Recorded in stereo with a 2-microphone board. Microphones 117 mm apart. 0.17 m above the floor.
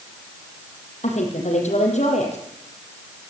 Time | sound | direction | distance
1.0 | a woman speaking | 75° left (ahead or behind) | 6 m